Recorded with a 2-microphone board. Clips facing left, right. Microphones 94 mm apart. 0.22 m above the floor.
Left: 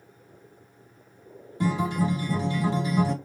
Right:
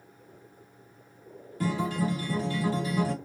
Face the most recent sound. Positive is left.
turn(degrees=20)  # may be behind; listen again after turning